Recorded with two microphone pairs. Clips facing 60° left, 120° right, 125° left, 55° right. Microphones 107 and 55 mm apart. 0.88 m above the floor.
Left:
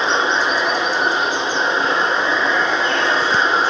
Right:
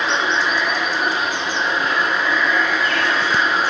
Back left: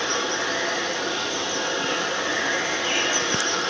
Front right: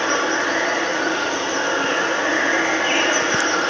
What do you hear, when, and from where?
0.0 s running water: straight ahead, 0.7 m